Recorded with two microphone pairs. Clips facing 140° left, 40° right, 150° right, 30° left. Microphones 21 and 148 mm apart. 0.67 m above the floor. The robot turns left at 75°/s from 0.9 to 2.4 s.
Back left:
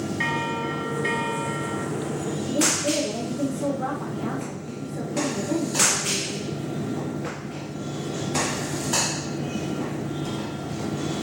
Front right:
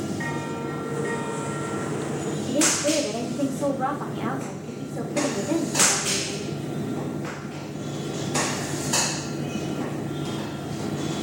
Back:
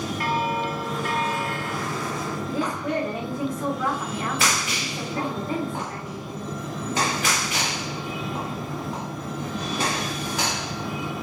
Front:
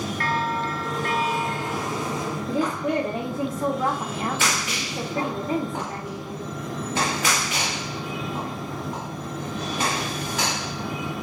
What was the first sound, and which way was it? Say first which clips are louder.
A bell: back left 4 dB, back 1 dB; 135° left.